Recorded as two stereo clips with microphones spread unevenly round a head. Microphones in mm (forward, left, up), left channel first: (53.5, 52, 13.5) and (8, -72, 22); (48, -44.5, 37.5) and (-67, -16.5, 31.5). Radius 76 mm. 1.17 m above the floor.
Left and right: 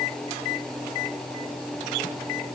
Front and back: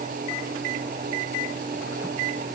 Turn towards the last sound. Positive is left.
No sound to turn to.